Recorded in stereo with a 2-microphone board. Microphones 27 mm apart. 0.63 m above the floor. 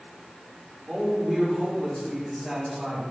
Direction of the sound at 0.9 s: 25° right (ahead or behind).